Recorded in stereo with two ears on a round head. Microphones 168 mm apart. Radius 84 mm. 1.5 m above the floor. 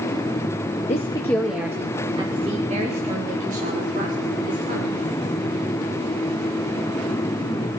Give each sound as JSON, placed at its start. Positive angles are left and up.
{"t": 0.9, "sound": "a woman speaking", "side_deg": 40, "distance_m": 1.1}